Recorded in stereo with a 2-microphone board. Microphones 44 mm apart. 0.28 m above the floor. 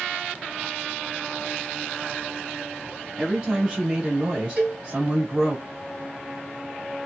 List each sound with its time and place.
3.2 s a woman speaking: 5° right (ahead or behind), 1.4 m; by 5.6 s 25° right (ahead or behind), 1.5 m
4.6 s a cowbell: 40° right (ahead or behind), 1.9 m